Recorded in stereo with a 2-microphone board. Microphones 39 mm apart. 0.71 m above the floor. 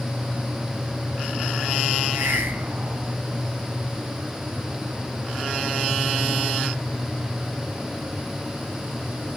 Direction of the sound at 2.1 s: 75° right (ahead or behind).